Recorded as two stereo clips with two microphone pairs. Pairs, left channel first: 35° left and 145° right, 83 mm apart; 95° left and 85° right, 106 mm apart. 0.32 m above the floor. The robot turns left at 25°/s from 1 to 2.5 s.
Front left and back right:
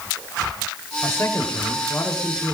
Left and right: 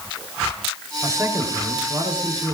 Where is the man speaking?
20° right, 5.5 m; by 2.5 s 55° right, 5.5 m.